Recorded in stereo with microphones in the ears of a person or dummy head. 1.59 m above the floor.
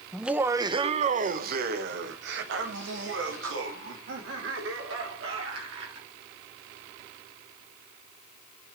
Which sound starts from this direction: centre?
Laughter, at 0.1 s.